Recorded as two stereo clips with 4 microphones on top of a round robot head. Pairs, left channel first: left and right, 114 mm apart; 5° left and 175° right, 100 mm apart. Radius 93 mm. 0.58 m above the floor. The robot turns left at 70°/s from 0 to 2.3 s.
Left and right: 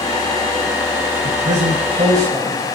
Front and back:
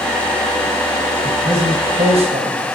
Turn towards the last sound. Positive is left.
turn(degrees=-160)